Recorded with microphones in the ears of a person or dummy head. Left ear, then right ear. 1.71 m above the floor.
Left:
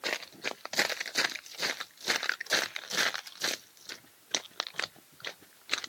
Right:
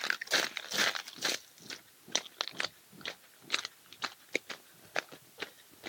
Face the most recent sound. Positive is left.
No sound to turn to.